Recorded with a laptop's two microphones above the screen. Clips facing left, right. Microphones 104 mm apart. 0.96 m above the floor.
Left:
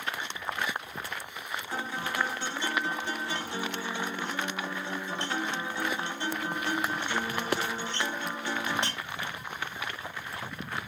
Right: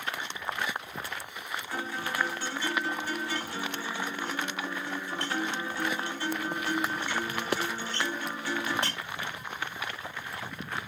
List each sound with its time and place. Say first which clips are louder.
1.7 s a guitar: left 1 dB; 20° left (ahead or behind), 1.2 m